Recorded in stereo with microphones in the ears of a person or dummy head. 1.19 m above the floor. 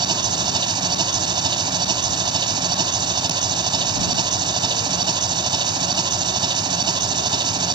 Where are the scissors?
No scissors in this recording.